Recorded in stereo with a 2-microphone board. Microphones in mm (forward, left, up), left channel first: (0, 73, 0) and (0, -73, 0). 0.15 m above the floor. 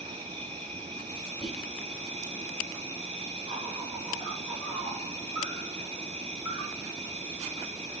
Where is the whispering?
40° left (ahead or behind), 1.6 m.